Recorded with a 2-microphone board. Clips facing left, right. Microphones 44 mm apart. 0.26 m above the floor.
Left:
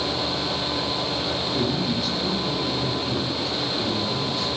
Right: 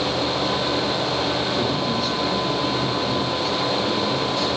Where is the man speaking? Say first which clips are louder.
Right 2 dB; centre (ahead or behind), 5 m; by 4.5 s 15° left (ahead or behind), 6.5 m.